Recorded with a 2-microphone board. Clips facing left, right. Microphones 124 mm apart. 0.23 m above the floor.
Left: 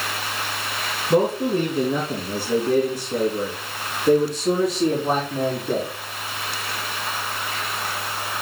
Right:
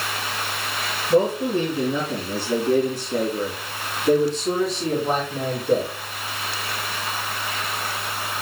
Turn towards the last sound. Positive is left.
turn(degrees=45)  # may be behind; listen again after turning